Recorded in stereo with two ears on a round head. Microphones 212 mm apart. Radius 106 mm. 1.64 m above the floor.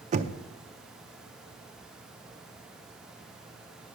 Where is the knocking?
30° right (ahead or behind), 0.6 m.